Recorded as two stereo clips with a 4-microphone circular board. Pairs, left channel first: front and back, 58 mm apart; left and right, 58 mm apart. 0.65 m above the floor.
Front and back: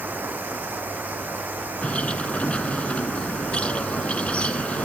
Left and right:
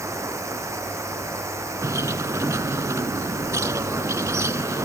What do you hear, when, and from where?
0.0 s running water: 120° right
1.8 s a bird: 70° right